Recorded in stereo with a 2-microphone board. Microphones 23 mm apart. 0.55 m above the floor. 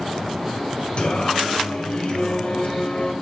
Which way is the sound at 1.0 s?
55° left (ahead or behind).